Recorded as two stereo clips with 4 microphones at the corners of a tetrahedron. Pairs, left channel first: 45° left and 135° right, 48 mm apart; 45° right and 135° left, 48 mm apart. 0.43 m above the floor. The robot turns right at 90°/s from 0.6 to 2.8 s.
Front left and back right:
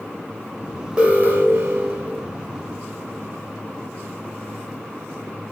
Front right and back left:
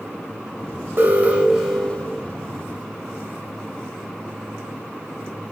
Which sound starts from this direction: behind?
An alarm, at 1.0 s.